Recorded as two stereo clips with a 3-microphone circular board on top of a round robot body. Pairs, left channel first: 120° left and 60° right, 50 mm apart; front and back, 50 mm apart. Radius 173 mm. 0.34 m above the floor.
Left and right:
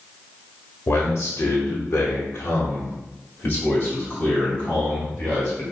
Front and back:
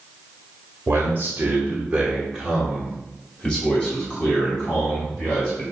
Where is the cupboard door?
No cupboard door in this recording.